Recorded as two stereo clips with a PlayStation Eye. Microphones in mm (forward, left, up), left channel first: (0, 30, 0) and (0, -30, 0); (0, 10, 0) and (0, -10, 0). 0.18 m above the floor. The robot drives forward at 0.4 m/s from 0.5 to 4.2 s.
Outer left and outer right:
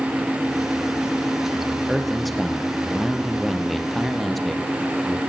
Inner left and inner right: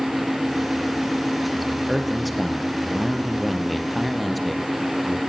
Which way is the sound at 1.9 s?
Centre (ahead or behind).